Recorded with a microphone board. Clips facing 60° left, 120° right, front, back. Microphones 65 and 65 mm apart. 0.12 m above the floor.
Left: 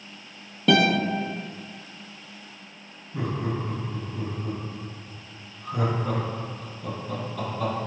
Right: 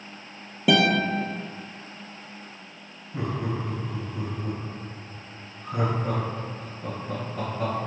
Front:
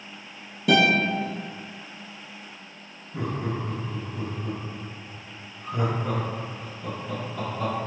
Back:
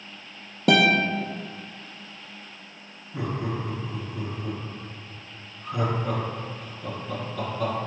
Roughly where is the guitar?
Behind.